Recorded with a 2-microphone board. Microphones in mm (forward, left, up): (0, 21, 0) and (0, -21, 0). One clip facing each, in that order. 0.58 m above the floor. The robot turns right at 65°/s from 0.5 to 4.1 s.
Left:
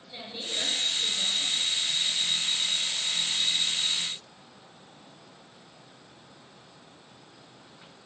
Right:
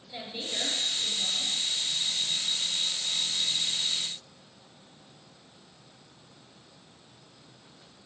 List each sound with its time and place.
0.1 s a woman speaking: straight ahead, 9 m; by 1.5 s 65° left, 9 m